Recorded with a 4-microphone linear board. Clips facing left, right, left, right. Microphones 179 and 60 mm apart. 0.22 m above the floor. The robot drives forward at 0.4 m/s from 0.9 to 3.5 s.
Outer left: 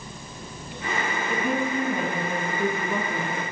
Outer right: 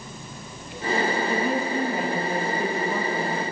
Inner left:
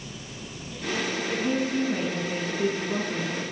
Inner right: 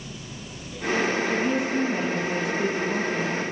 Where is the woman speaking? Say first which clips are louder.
Outer right 1 dB, inner right 2 dB; 50° left (ahead or behind), 2.5 m; by 3.4 s 40° left (ahead or behind), 3 m.